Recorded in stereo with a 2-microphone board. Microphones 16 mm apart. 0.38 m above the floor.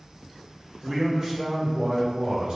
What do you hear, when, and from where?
0.8 s a man speaking: 35° right (ahead or behind), 1.7 m; by 2.6 s 55° right (ahead or behind), 2.5 m